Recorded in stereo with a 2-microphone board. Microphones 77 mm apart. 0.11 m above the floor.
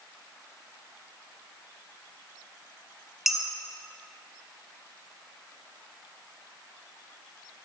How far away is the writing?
I don't hear writing.